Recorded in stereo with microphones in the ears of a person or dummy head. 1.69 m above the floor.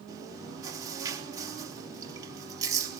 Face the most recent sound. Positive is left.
turn(degrees=-20)  # may be behind; listen again after turning